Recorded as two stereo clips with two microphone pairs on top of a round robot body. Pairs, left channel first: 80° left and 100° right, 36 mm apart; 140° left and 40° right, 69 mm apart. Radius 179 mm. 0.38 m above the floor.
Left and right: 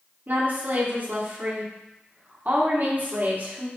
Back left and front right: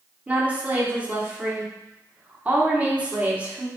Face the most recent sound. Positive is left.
turn(degrees=-110)